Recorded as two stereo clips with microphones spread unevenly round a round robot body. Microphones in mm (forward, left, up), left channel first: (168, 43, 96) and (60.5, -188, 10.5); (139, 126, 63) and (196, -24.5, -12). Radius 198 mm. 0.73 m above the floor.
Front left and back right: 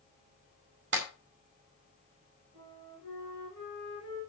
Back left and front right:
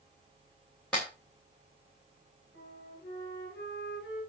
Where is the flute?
145° left, 9 m.